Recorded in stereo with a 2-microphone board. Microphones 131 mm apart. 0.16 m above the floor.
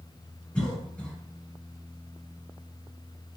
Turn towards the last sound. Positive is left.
turn(degrees=10)  # may be behind; listen again after turning